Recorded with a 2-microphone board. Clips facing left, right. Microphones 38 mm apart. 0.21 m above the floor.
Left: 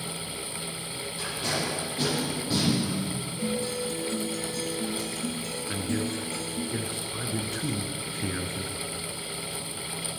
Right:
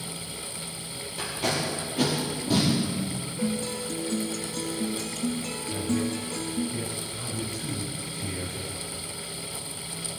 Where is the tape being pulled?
75° right (ahead or behind), 5 m.